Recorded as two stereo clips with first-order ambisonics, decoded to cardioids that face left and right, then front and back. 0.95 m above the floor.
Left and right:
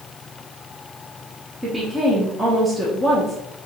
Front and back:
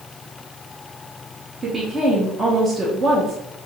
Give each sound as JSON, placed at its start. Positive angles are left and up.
{"t": 1.6, "sound": "a woman speaking", "azimuth_deg": -150, "distance_m": 0.7}